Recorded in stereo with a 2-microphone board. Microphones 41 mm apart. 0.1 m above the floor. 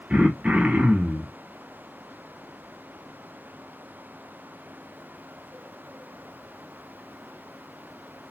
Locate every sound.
0.1 s throat clearing: 35° right (ahead or behind), 1.1 m